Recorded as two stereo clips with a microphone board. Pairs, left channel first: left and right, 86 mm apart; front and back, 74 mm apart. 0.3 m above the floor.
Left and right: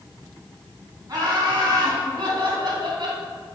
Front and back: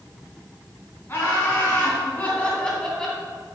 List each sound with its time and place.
1.1 s laughter: 55° right, 2.5 m; by 3.2 s 80° right, 2 m